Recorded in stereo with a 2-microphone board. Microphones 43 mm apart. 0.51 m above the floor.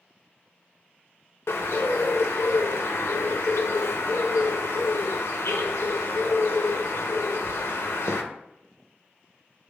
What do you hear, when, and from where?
1.5 s a bird: 75° left (ahead or behind), 0.5 m